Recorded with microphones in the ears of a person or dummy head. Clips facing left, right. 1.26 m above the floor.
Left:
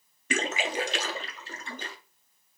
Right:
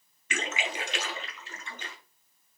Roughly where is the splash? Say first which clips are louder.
Left 5 dB; left.